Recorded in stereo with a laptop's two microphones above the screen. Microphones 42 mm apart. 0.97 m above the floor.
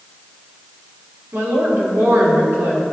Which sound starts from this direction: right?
A woman speaking, at 1.3 s.